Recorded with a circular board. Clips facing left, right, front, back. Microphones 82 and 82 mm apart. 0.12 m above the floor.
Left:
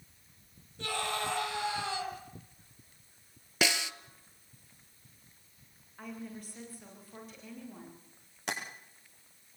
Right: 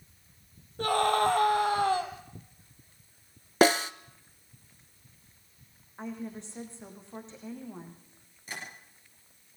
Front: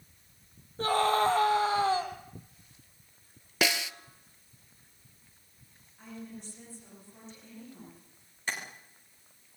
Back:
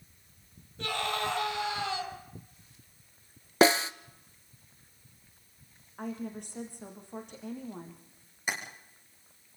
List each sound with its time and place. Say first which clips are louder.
0.8 s a scream: right 10 dB, front 7 dB; 50° right, 3.5 m
3.6 s a snare drum: right 10 dB, back 8 dB; 130° right, 0.6 m
6.0 s a woman speaking: right 5 dB, back 7 dB; 155° right, 7.5 m
8.5 s tapping: left 5 dB, back 1 dB; 105° left, 7.5 m